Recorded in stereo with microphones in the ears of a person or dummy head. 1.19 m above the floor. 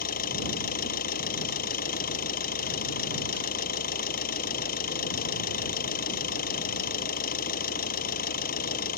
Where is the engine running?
55° left (ahead or behind).